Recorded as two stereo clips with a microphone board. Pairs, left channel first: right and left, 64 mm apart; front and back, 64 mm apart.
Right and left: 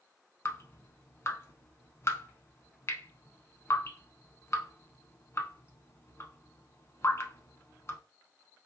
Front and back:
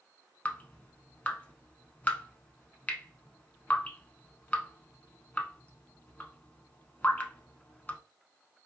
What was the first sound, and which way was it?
Dripping, 60° right.